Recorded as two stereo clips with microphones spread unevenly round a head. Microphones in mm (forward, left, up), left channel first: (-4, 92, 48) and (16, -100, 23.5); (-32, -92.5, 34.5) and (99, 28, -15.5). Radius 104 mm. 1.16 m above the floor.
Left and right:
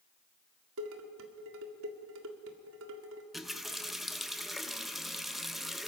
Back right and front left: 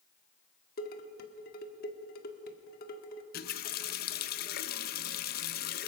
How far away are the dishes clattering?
About 1.9 m.